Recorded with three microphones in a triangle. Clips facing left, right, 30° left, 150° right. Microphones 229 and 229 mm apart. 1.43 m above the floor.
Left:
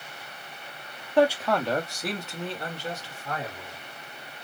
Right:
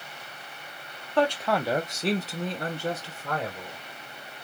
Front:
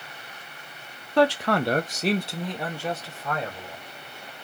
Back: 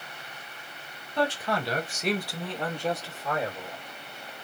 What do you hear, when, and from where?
1.2 s a man speaking: 15° left, 0.7 m; by 3.8 s 70° right, 1.4 m